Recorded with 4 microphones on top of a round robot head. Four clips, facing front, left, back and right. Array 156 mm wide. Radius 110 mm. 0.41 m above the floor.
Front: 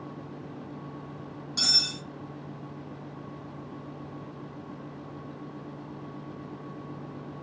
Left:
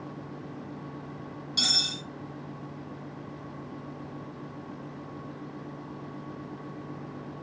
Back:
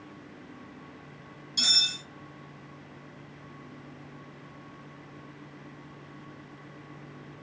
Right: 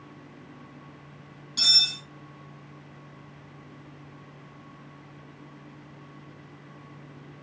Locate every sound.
1.6 s cutlery clinking: 25° left, 1.5 m